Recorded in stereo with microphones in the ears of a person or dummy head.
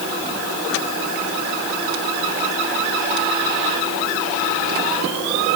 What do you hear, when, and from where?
Only background noise.